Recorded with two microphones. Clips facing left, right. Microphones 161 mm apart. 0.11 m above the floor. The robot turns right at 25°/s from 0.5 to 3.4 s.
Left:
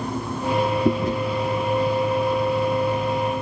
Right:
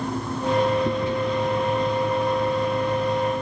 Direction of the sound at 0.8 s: 45° left (ahead or behind).